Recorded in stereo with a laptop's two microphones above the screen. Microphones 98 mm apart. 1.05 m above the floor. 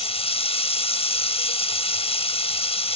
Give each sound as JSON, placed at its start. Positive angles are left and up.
{"t": 0.0, "sound": "running water", "side_deg": 80}